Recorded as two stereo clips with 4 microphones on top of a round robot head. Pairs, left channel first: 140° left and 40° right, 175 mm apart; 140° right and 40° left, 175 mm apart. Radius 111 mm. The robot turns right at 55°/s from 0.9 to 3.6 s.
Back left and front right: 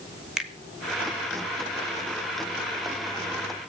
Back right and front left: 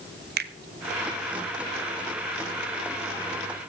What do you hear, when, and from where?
0.4 s a finger snap: 45° left, 1.7 m